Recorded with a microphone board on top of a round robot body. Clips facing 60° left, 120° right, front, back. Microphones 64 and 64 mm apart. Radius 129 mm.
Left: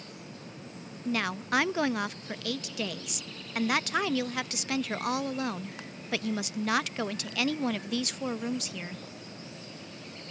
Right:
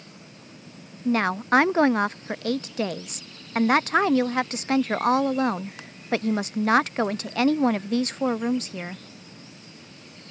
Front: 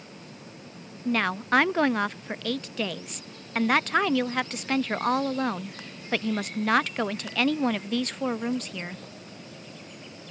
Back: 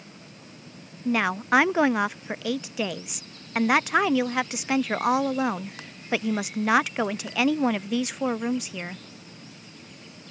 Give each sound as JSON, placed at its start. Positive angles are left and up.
{"t": 1.1, "sound": "a woman speaking", "azimuth_deg": -105}